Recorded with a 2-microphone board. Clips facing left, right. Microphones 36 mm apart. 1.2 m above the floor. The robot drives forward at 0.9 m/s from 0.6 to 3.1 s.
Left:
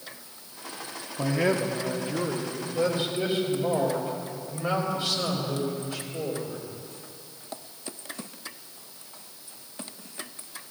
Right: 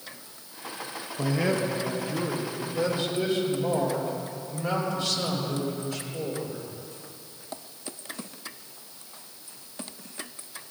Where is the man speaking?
5° left (ahead or behind), 0.7 m; by 6.6 s centre (ahead or behind), 2 m.